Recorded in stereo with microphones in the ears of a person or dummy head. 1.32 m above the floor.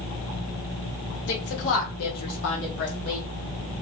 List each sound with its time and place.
1.3 s a woman speaking: 60° left (ahead or behind), 1.5 m; by 3.3 s 40° left (ahead or behind), 1.0 m